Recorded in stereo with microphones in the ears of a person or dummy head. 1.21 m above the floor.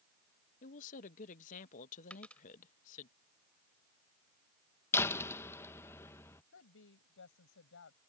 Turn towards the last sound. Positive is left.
turn(degrees=65)  # may be behind; listen again after turning